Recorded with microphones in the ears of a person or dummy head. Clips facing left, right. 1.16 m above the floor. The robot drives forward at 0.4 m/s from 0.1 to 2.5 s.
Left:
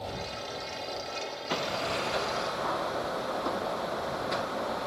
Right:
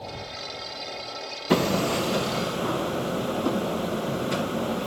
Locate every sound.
1.5 s hammering: 60° right (ahead or behind); by 4.9 s 40° right (ahead or behind)